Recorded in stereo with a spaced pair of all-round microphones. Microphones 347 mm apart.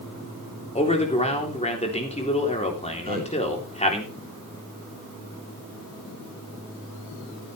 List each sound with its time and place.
0.8 s a man speaking: 20° left (ahead or behind), 3.5 m
3.0 s a man speaking: 25° right (ahead or behind), 3 m